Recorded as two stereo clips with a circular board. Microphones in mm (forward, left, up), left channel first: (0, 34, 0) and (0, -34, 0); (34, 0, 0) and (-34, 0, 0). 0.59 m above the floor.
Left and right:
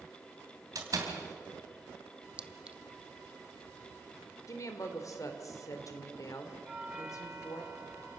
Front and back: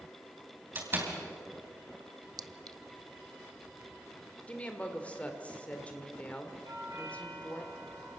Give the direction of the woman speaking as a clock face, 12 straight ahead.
10 o'clock.